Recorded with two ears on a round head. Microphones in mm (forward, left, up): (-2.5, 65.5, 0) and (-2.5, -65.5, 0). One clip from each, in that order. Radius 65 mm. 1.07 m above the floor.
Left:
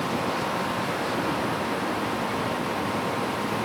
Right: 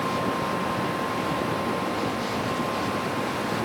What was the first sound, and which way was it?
Only background noise.